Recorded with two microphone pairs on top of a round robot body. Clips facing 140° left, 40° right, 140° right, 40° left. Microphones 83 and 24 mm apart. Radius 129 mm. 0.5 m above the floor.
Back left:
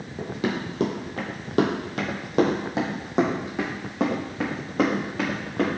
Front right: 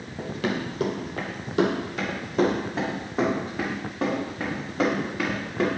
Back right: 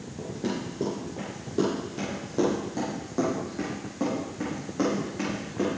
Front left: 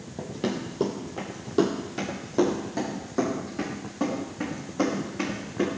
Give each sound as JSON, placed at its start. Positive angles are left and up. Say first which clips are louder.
{"t": 0.2, "sound": "running footsteps", "louder": "even, front left 2 dB", "azimuth_deg": 55, "distance_m": 1.1}